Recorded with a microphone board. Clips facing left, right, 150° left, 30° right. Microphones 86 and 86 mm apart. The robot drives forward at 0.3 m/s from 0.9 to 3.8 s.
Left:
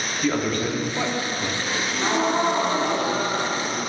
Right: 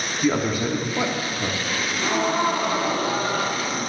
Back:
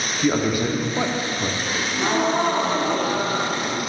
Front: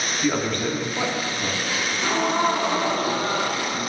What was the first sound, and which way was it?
A man speaking, 160° right.